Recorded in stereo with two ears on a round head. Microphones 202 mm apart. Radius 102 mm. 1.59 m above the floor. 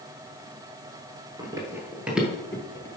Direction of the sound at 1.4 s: 20° right (ahead or behind).